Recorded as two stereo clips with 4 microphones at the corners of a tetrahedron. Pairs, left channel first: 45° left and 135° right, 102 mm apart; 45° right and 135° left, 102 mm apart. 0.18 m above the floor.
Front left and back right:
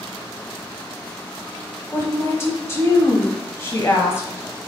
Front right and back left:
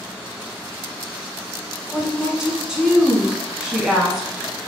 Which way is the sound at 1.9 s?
60° left.